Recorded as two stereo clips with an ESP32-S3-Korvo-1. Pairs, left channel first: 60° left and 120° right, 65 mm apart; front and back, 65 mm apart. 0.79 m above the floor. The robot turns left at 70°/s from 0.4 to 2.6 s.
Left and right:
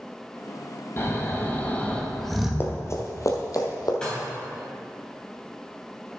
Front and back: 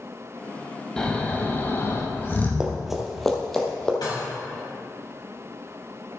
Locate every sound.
1.0 s snoring: 70° left, 1.1 m; by 2.5 s 40° right, 1.1 m
2.6 s running footsteps: 105° left, 1.0 m; by 3.9 s 80° left, 1.8 m
4.0 s dishes clattering: 20° right, 3 m